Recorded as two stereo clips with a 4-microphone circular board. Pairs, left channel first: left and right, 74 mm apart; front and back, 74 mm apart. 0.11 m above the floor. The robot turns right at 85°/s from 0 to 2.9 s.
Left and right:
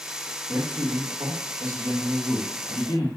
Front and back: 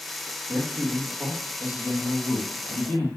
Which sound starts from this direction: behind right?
A man speaking, at 0.5 s.